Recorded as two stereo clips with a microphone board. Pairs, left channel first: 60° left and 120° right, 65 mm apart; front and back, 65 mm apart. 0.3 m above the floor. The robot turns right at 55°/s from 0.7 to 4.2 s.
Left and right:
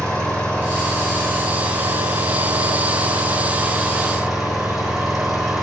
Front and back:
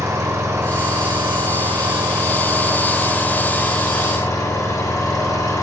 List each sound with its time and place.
0.0 s an engine running: 140° left, 7.5 m; by 5.6 s 30° right, 7.5 m